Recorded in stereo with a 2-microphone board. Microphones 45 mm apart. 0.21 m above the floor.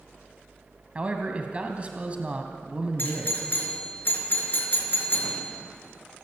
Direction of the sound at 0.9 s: 30° right (ahead or behind).